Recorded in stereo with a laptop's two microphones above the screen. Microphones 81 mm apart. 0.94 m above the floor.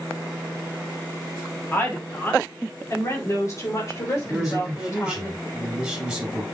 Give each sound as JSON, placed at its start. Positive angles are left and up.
{"t": 1.7, "sound": "a woman speaking", "side_deg": 25, "distance_m": 1.6}
{"t": 4.3, "sound": "a man speaking", "side_deg": -5, "distance_m": 4.0}